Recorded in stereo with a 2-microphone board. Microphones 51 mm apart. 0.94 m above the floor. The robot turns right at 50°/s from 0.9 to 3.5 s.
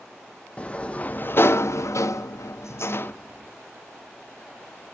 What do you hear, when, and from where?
0.6 s a sliding door: 25° left, 0.6 m; by 3.1 s 140° left, 0.6 m